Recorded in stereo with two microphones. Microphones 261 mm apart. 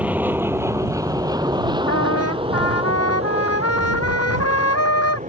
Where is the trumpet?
65° left (ahead or behind).